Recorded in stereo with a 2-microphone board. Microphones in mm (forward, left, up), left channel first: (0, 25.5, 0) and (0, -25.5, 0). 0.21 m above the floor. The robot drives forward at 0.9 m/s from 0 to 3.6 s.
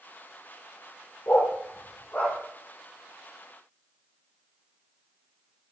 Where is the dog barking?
50° left (ahead or behind), 1.6 m; by 2.4 s 30° left (ahead or behind), 2.5 m.